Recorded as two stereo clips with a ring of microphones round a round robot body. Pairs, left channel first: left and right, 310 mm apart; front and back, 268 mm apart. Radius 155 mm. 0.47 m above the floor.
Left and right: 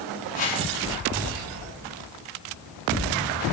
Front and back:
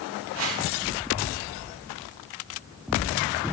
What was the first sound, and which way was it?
A whoosh, 155° left.